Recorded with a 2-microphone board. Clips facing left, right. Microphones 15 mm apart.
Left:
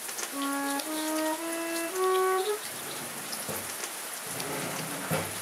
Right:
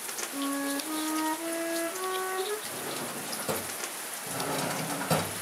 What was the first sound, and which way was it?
A flute, 45° left (ahead or behind).